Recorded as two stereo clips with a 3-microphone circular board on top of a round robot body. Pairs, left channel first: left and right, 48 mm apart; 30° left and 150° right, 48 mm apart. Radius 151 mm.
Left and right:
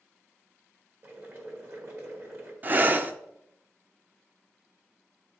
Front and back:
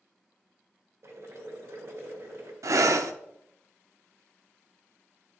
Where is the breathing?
145° right, 0.6 m.